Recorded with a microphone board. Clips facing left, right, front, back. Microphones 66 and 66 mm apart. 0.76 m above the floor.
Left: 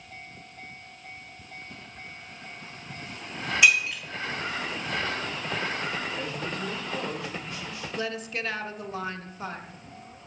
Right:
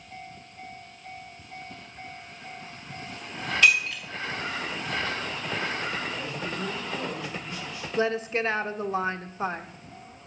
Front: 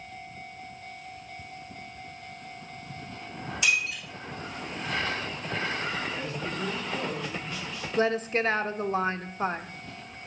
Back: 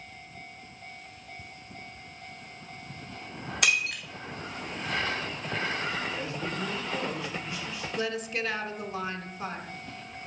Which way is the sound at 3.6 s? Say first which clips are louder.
Even, even; 165° left.